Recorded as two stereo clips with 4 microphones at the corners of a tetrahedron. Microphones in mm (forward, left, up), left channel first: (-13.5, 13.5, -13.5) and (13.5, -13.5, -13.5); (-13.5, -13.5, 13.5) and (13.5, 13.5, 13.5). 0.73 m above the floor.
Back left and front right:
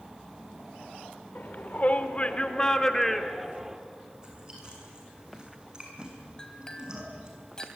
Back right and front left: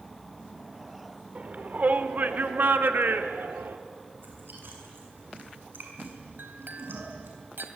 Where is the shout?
95° left, 2.5 m; by 3.8 s 30° left, 1.8 m.